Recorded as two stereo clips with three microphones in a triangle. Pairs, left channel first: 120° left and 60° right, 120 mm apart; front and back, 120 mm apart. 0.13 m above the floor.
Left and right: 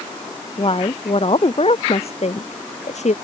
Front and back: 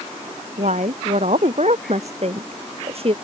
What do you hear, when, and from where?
0.6 s a woman speaking: 165° left; by 3.1 s 140° left